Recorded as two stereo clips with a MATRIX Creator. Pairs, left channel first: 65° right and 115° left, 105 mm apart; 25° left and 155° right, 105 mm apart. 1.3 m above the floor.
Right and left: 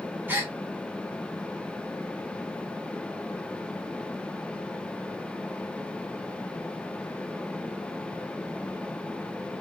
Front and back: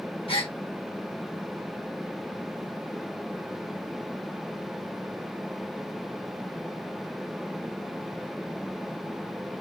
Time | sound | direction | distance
0.3 | a gasp | 45° left | 1.1 m